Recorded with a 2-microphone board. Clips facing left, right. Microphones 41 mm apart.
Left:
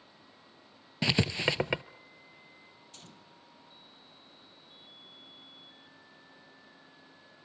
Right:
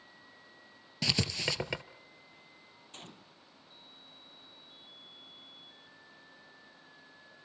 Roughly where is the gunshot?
Right.